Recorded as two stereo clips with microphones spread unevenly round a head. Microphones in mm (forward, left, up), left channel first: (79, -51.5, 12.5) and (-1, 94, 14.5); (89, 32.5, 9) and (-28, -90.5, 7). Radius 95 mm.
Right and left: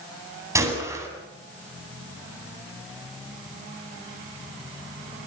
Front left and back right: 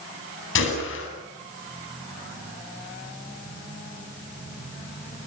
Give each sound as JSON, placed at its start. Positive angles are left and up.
{"t": 0.6, "sound": "a gunshot", "azimuth_deg": 45, "distance_m": 8.0}